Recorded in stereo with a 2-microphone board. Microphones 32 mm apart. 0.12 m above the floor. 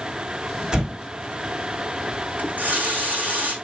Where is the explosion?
30° right (ahead or behind), 3.5 m.